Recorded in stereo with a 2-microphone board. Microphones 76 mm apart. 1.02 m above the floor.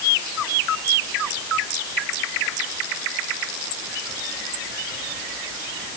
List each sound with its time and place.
Only background noise.